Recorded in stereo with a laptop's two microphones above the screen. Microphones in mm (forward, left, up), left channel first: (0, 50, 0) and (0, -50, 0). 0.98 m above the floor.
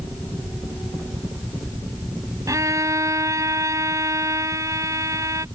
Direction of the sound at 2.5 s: 35° right (ahead or behind).